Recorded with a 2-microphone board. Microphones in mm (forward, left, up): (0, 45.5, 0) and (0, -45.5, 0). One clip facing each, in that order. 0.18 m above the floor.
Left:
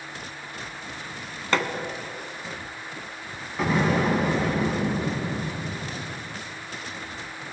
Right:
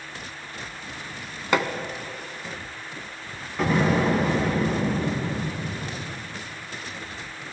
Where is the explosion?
Centre (ahead or behind), 1.6 m.